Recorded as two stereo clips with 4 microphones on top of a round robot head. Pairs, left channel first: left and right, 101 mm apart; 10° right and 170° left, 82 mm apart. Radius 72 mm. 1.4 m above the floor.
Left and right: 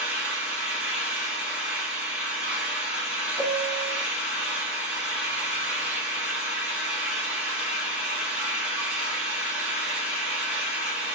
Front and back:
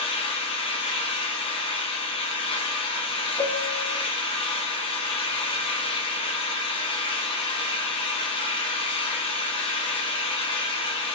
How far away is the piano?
About 0.7 m.